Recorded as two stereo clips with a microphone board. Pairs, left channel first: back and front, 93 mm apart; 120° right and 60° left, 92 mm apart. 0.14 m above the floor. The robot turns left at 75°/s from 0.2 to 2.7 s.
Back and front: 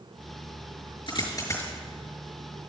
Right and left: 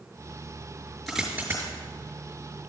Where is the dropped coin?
155° left, 5.5 m; by 1.7 s 105° left, 5.5 m.